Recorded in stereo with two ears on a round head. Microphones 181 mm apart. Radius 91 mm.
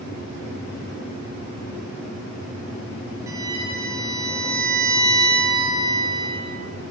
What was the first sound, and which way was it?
A violin, 15° right (ahead or behind).